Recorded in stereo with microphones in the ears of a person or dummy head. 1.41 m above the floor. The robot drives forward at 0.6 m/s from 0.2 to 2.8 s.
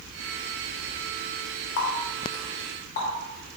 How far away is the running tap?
About 0.8 m.